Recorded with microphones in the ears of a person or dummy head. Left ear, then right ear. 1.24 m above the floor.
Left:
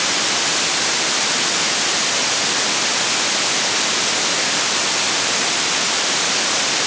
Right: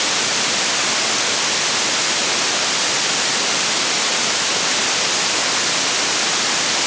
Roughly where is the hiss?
I don't hear a hiss.